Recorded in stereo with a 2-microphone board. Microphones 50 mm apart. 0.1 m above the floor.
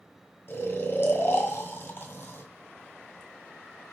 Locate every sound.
0.5 s snoring: 45° left (ahead or behind), 1.1 m